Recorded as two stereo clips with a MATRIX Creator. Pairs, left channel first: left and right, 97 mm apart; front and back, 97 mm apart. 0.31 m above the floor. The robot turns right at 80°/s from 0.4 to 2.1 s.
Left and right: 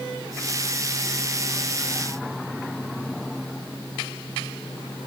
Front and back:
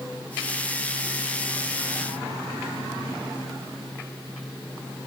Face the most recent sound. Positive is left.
No sound to turn to.